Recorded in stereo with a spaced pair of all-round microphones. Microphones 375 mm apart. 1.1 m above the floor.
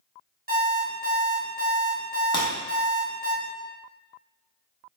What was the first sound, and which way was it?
An alarm clock, 25° right (ahead or behind).